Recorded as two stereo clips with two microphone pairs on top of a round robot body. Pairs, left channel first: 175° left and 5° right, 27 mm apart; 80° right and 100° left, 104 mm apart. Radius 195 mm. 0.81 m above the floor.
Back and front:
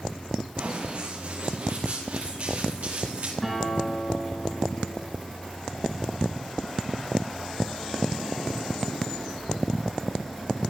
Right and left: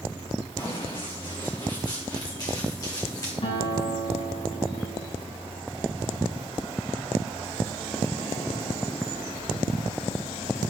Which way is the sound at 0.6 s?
35° right.